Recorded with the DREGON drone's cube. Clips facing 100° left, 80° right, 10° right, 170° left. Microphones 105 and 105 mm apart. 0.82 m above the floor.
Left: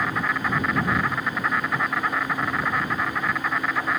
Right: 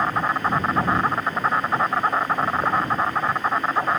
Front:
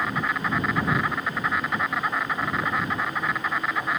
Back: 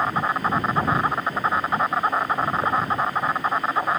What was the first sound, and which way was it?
An insect, 135° right.